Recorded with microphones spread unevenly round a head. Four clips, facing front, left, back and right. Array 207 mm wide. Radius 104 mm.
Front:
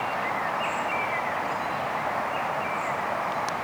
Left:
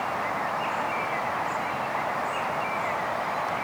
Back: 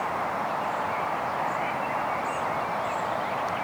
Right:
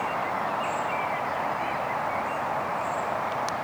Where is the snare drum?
I don't hear a snare drum.